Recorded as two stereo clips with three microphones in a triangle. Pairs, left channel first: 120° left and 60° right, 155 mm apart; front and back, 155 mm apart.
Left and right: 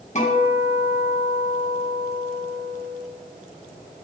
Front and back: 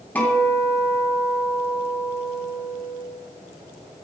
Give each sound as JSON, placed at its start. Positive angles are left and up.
{"t": 0.1, "sound": "a guitar", "azimuth_deg": 80, "distance_m": 2.5}